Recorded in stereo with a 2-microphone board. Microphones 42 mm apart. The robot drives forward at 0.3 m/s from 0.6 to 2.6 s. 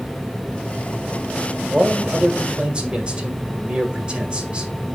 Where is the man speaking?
30° right (ahead or behind), 1.5 m; by 4.7 s 25° right (ahead or behind), 1.7 m.